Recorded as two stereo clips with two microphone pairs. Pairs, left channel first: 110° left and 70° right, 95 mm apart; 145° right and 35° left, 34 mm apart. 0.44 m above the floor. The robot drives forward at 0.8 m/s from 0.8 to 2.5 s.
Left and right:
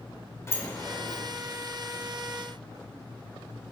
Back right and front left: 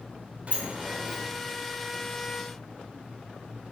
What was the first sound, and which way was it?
A sliding door, 60° left.